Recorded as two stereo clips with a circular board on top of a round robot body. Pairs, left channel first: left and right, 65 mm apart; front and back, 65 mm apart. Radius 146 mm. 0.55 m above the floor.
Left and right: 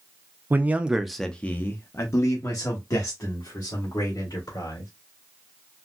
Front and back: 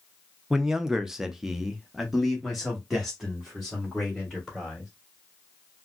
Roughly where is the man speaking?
Right.